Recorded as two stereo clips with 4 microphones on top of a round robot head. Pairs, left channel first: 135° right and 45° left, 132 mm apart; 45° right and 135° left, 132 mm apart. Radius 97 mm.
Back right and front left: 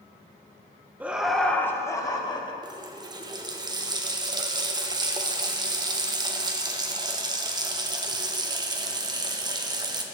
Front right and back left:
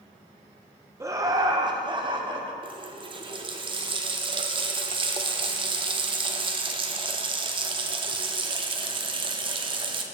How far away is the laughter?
About 0.8 m.